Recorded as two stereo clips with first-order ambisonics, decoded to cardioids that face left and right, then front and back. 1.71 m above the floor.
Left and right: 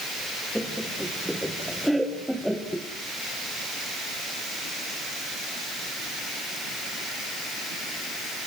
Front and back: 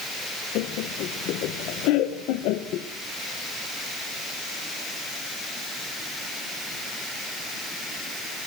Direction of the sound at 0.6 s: Straight ahead.